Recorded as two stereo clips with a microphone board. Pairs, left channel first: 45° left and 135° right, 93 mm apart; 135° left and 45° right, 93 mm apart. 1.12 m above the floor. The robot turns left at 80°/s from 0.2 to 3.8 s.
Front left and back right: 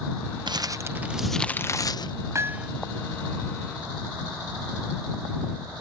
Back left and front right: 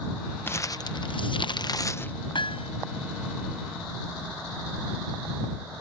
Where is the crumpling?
160° right; by 2.1 s 65° left.